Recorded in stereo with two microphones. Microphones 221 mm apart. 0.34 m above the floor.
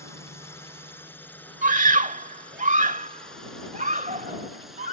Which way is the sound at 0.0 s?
10° left (ahead or behind).